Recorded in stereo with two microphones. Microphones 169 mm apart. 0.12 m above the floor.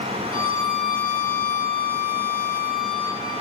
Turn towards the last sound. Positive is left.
turn(degrees=50)  # may be behind; listen again after turning